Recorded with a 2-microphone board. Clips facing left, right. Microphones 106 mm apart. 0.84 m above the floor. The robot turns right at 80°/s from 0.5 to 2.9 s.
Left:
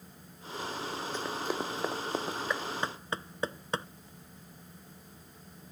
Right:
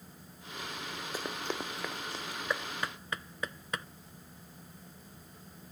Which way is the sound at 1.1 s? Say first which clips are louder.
Left 2 dB; 10° right (ahead or behind).